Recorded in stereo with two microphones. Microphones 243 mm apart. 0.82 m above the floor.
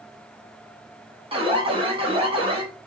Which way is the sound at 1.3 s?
20° right (ahead or behind).